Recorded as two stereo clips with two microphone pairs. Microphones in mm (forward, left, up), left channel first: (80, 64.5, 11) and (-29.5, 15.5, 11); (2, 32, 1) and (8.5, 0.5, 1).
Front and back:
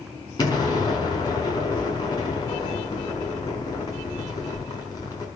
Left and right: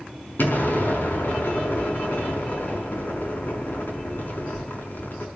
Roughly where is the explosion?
Left.